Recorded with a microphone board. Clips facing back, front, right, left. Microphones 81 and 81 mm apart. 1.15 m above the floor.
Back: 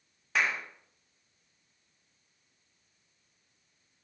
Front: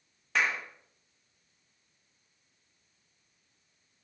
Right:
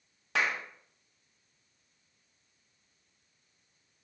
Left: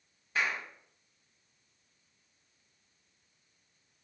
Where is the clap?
95° right, 1.0 m.